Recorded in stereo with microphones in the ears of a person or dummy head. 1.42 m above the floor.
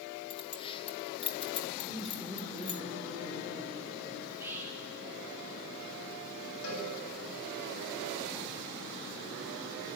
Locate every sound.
0.3 s keys jangling: 25° left (ahead or behind), 1.4 m
1.9 s laughter: centre (ahead or behind), 4.5 m
4.2 s whispering: 15° right (ahead or behind), 8 m
6.6 s a cowbell: 85° left, 8 m